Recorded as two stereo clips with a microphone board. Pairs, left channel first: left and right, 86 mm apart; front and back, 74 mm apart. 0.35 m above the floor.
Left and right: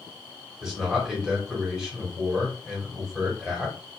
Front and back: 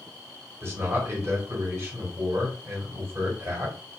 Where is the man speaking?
170° right, 1.7 m.